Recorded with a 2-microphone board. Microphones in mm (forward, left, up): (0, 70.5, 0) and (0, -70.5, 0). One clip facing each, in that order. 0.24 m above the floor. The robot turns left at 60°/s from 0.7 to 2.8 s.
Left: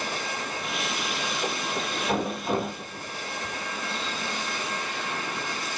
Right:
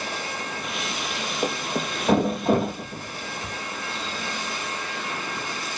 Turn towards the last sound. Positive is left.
turn(degrees=-40)  # may be behind; listen again after turning